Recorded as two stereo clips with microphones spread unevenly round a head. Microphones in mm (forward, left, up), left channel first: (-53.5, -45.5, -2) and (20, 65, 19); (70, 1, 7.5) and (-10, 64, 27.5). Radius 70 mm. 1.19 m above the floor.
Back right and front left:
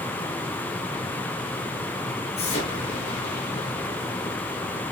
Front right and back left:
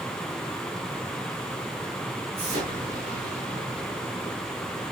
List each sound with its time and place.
2.4 s an explosion: 170° right, 8 m